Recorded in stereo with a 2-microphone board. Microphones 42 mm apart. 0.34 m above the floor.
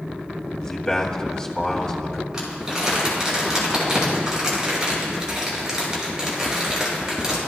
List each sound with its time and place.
0.6 s a man speaking: 15° left (ahead or behind), 2 m
2.3 s crumpling: 15° right (ahead or behind), 6.5 m